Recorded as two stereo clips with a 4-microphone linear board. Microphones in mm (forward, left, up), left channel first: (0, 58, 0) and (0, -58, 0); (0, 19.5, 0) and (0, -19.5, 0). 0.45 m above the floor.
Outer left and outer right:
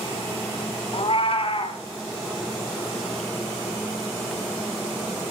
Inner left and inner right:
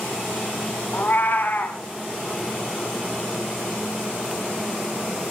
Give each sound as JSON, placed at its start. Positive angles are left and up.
{"t": 0.9, "sound": "a cat meowing", "side_deg": 55, "distance_m": 1.2}